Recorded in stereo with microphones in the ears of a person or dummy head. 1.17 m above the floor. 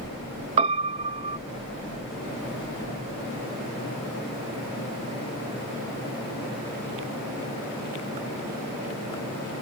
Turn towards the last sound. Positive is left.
turn(degrees=-35)  # may be behind; listen again after turning